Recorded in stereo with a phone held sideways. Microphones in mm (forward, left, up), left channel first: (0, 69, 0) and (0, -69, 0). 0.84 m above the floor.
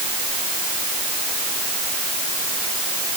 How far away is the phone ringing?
No phone ringing in this recording.